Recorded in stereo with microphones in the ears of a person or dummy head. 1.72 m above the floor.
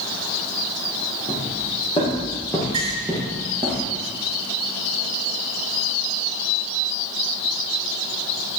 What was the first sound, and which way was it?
Footsteps, 30° left (ahead or behind).